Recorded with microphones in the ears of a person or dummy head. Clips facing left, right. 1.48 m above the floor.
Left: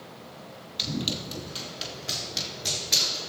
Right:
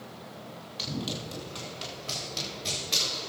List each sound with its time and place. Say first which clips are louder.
0.8 s running footsteps: left 3 dB; 15° left (ahead or behind), 2.5 m; by 3.3 s 5° left (ahead or behind), 5 m